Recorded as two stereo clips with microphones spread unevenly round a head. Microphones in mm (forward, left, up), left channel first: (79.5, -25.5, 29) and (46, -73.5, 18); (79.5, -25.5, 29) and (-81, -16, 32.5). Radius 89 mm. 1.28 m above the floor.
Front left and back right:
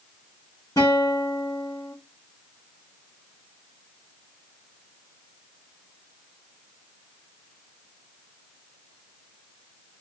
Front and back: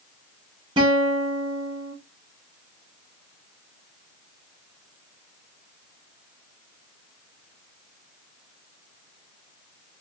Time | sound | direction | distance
0.8 | a guitar | 115° left | 0.9 m